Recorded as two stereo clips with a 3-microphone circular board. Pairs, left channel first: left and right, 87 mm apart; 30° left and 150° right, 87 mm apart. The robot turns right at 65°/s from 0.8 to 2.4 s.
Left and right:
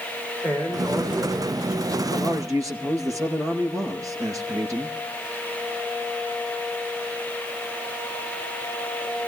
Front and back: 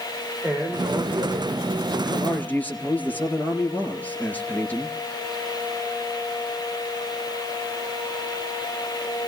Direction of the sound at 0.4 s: 170° left.